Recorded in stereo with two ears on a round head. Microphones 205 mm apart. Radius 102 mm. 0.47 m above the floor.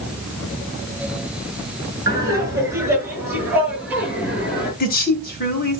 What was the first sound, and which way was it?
Laughter, 15° right (ahead or behind).